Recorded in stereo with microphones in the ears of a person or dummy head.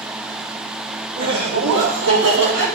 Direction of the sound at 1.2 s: 60° right (ahead or behind).